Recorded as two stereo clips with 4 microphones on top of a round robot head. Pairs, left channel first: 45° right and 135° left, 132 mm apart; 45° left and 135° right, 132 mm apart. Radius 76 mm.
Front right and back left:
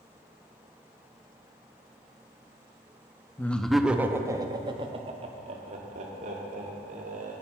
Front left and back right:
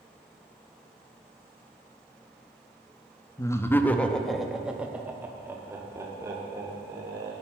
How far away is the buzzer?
I don't hear a buzzer.